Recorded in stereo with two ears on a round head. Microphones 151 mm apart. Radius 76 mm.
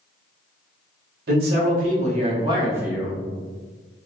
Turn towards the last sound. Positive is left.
turn(degrees=5)  # may be behind; listen again after turning